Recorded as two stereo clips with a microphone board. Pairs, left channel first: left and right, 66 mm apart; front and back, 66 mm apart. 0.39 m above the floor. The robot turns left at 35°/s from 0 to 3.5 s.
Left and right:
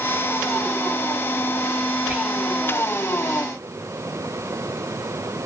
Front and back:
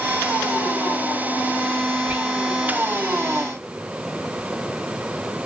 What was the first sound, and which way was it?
Whispering, 140° right.